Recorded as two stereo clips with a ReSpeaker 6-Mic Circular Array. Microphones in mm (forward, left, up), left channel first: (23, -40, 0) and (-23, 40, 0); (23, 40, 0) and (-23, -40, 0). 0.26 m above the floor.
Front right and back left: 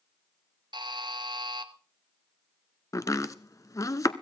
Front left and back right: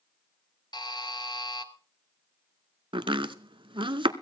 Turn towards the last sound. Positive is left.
turn(degrees=-110)